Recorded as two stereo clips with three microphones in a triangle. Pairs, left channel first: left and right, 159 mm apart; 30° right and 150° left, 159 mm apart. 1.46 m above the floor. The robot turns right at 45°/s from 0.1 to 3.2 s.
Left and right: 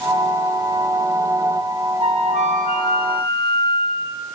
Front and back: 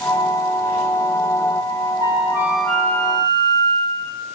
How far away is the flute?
About 0.9 m.